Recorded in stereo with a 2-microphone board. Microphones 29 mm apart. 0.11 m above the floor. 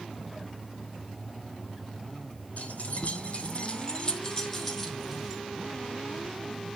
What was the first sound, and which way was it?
Keys jangling, 65° left (ahead or behind).